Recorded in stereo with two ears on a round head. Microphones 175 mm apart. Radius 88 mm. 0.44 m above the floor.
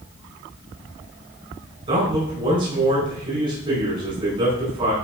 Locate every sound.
1.9 s a man speaking: 35° right (ahead or behind), 4.5 m